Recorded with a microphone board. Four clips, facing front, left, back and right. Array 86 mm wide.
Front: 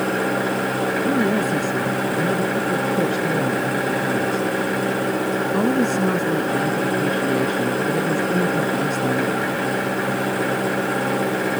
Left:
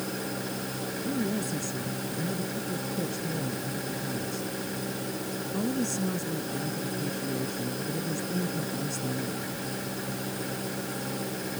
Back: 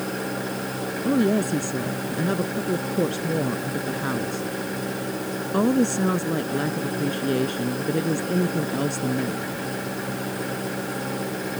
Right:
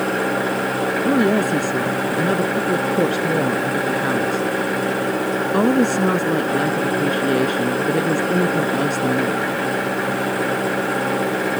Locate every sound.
0.0 s an engine running: 60° right
1.1 s a woman speaking: 100° right